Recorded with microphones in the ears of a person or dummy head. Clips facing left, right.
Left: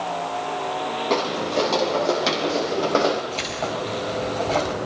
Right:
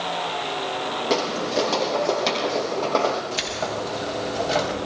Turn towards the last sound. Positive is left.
turn(degrees=-10)  # may be behind; listen again after turning